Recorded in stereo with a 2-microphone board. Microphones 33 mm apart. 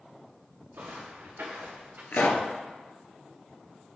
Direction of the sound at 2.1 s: 70° left (ahead or behind).